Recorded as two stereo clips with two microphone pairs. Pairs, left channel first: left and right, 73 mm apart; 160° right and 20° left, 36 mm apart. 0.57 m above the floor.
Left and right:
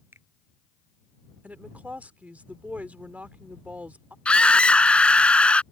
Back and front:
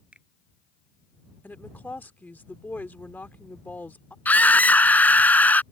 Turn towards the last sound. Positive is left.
turn(degrees=165)